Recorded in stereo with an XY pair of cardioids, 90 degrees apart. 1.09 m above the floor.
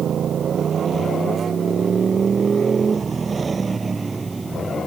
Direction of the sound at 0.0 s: 60° right.